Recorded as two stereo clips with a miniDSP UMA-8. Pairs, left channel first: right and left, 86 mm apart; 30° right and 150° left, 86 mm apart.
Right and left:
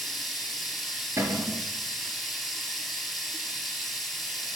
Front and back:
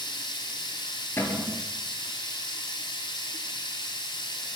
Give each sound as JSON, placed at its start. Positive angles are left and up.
{"t": 0.0, "sound": "running water", "azimuth_deg": 0, "distance_m": 1.3}
{"t": 1.2, "sound": "a cupboard door", "azimuth_deg": 35, "distance_m": 1.4}